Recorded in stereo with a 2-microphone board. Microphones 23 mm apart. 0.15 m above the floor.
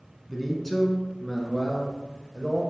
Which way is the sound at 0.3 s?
5° left (ahead or behind).